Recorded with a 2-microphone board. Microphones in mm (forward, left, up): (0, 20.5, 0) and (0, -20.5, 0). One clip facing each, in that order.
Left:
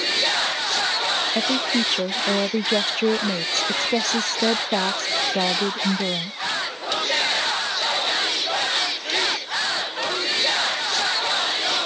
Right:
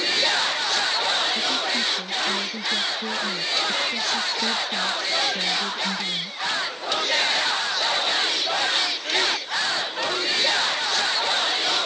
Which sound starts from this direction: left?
A woman speaking, at 1.4 s.